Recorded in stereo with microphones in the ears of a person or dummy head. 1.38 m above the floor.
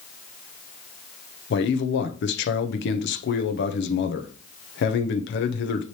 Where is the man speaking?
55° left (ahead or behind), 0.9 m.